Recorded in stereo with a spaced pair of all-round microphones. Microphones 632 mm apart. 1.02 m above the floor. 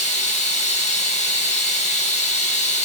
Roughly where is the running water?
Centre.